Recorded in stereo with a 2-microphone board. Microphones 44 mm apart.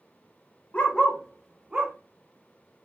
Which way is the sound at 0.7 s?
35° left (ahead or behind).